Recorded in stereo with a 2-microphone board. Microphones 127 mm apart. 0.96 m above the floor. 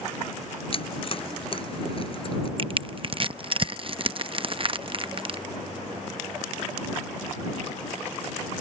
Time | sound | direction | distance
0.7 | chewing | 45° left (ahead or behind) | ?
2.6 | crushing | 45° right (ahead or behind) | ?